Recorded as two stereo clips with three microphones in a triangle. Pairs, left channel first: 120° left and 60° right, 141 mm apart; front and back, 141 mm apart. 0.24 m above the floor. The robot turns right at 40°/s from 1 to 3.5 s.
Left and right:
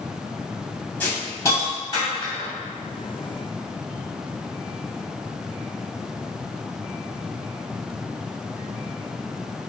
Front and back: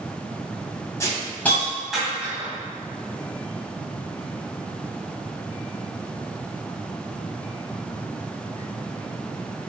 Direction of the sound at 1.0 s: 50° left.